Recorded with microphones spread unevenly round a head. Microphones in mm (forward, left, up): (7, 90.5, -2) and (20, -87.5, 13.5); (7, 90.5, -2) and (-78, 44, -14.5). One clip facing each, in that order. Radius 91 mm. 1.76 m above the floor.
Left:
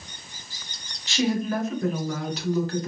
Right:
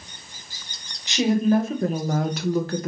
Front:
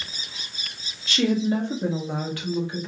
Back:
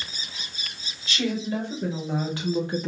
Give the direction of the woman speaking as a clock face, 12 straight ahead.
1 o'clock.